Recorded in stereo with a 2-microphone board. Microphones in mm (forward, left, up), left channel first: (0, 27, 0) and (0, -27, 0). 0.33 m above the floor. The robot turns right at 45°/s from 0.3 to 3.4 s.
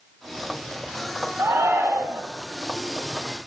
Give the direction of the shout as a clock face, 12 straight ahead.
3 o'clock.